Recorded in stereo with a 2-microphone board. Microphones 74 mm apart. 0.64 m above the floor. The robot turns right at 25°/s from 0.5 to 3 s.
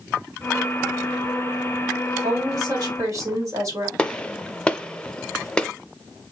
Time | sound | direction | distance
2.2 | a woman speaking | 65° right (ahead or behind) | 2 m
4.0 | a gunshot | 10° left (ahead or behind) | 0.5 m